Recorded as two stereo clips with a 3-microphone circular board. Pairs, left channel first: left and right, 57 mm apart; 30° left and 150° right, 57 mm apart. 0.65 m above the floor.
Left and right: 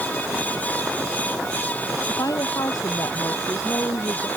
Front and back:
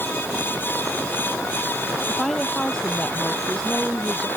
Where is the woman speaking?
110° left.